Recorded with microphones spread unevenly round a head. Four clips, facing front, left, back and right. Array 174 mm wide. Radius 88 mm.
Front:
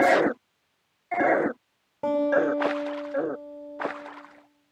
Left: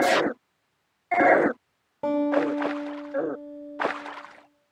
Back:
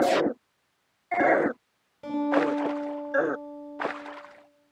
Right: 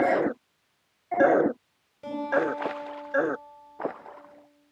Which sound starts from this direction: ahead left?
A guitar, at 2.0 s.